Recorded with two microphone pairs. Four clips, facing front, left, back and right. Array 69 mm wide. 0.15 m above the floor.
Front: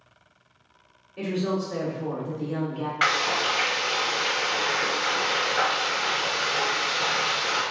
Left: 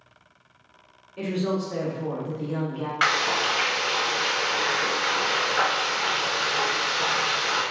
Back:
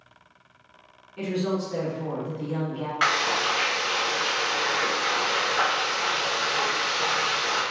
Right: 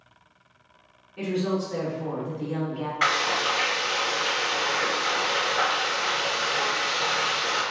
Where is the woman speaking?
100° left, 1.7 m.